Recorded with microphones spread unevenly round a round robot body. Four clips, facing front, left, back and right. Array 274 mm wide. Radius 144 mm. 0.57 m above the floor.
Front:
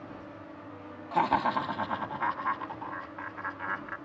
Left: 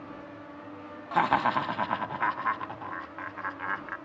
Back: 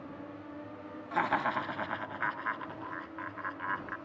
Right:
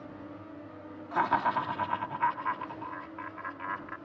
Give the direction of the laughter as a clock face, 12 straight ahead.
10 o'clock.